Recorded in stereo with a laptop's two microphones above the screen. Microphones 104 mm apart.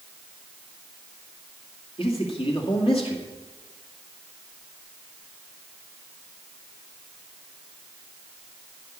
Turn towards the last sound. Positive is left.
turn(degrees=60)  # may be behind; listen again after turning